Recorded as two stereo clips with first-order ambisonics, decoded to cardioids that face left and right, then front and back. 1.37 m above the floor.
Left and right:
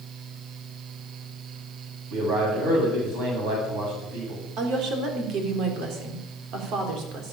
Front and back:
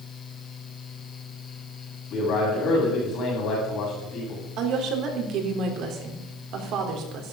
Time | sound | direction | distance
2.1 | a man speaking | 50° right | 8 m
4.6 | a woman speaking | 135° right | 3.5 m